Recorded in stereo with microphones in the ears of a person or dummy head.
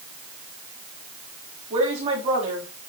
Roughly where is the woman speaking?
Right.